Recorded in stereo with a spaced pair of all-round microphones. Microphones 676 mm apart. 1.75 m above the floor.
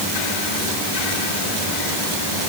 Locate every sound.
Only background noise.